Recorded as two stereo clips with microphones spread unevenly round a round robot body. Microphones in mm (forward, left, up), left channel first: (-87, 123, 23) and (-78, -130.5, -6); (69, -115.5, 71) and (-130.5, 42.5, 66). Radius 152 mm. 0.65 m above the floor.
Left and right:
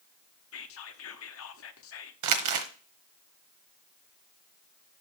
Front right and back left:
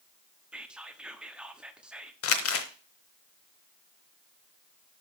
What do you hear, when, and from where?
0.5 s whispering: 55° left, 1.0 m
2.2 s crumpling: 70° right, 1.0 m